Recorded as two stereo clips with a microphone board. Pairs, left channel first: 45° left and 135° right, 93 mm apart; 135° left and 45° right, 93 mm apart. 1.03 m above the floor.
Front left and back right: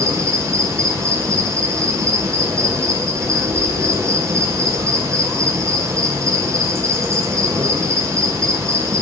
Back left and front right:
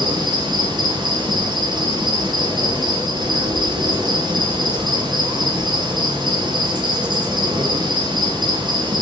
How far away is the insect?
About 1.6 m.